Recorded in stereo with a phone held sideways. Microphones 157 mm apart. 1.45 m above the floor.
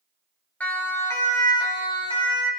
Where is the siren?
10° left (ahead or behind), 4 m; by 2.5 s 35° left (ahead or behind), 5.5 m.